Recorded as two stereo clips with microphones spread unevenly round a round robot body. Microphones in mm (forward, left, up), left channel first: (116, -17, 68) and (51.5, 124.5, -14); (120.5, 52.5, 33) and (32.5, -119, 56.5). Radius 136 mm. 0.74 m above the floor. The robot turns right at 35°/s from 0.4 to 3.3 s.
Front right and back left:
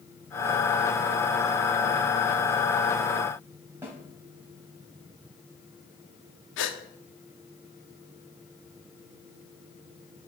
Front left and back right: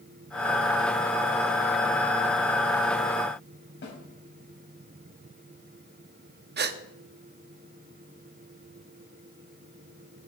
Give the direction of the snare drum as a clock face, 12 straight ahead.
11 o'clock.